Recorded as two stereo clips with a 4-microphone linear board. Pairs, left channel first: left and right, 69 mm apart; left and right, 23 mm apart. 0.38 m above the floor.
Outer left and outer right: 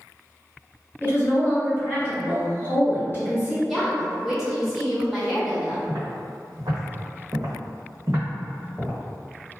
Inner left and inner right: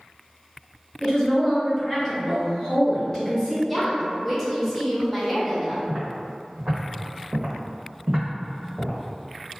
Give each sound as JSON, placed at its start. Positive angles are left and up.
{"t": 1.0, "sound": "a woman speaking", "side_deg": 30, "distance_m": 1.5}
{"t": 3.7, "sound": "a woman speaking", "side_deg": -5, "distance_m": 0.9}
{"t": 5.9, "sound": "footsteps", "side_deg": -65, "distance_m": 1.4}